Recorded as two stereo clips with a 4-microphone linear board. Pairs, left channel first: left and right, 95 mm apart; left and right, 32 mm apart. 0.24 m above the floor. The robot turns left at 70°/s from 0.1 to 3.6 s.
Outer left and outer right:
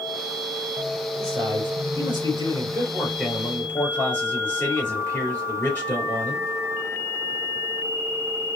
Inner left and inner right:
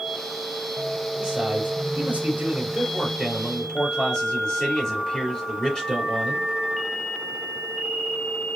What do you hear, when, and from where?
1.2 s a man speaking: 30° right, 3.5 m; by 6.5 s 160° left, 3.5 m